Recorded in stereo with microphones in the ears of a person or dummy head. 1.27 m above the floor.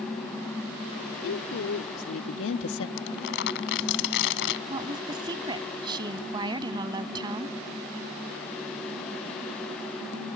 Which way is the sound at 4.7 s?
25° right (ahead or behind).